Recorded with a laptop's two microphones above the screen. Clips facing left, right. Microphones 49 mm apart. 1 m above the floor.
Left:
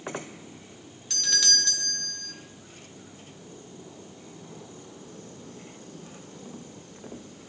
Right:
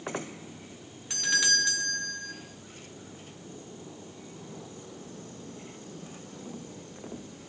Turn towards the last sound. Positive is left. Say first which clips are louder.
# right 3 dB
turn(degrees=-20)  # may be behind; listen again after turning